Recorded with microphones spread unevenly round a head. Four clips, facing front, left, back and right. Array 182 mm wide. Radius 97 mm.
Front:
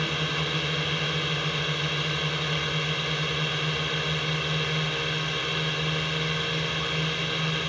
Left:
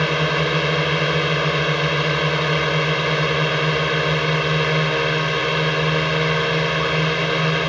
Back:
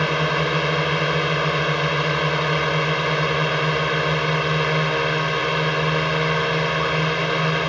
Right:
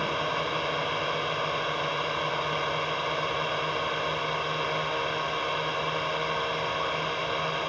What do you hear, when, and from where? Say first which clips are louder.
0.0 s a drone: left 8 dB, back 9 dB; 120° left